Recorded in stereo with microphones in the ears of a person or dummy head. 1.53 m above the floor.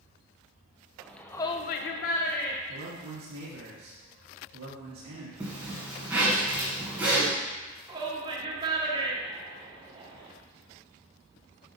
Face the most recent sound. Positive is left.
turn(degrees=-30)  # may be behind; listen again after turning